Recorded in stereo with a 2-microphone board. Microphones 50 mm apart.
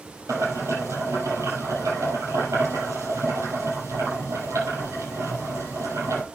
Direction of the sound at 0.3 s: 80° right.